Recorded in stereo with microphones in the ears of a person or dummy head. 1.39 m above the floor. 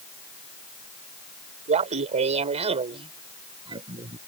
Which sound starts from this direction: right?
Laughter, at 1.7 s.